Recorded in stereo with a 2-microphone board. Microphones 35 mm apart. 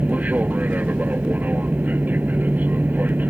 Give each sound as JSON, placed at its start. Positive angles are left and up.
{"t": 0.0, "sound": "an aircraft", "side_deg": -50}